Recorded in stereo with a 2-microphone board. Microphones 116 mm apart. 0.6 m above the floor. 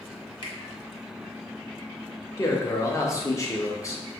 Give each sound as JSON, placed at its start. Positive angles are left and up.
{"t": 0.4, "sound": "a finger snap", "side_deg": 45, "distance_m": 1.2}
{"t": 2.4, "sound": "a man speaking", "side_deg": 25, "distance_m": 0.8}